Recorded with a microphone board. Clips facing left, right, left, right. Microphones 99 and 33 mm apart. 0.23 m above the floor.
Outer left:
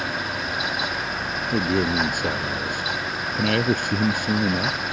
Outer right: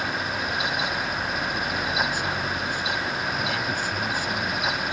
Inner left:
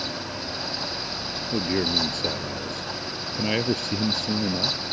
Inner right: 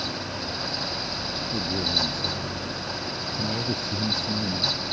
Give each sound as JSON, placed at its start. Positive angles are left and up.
{"t": 1.5, "sound": "a man speaking", "side_deg": 60}